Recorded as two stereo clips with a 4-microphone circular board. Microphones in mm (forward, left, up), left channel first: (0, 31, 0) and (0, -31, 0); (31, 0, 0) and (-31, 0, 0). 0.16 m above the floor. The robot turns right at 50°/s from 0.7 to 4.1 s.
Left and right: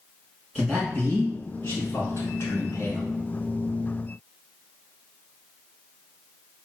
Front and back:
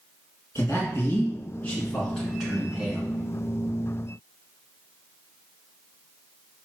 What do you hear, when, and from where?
0.6 s a man speaking: straight ahead, 1.5 m; by 3.1 s 120° left, 1.5 m